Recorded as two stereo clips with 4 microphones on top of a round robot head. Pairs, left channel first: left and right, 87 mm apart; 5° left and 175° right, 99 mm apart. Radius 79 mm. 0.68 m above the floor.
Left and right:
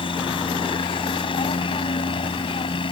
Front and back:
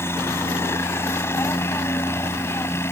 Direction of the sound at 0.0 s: 70° left.